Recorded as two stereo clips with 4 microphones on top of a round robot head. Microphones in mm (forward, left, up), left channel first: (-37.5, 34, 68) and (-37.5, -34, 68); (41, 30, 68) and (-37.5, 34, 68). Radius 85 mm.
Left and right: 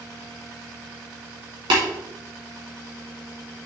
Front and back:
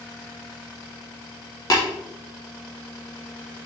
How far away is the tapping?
About 2 m.